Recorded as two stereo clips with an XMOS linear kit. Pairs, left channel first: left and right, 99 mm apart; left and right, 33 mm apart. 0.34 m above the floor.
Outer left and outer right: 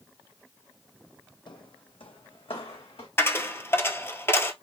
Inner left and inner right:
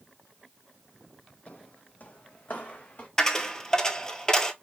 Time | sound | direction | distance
1.5 | footsteps | 55° left (ahead or behind) | 0.5 m
3.2 | a dropped coin | 25° left (ahead or behind) | 0.6 m